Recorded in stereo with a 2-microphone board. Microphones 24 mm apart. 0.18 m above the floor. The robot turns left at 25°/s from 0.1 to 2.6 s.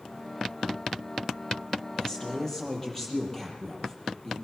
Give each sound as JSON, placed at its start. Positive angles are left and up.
{"t": 2.0, "sound": "a man speaking", "side_deg": 35, "distance_m": 5.5}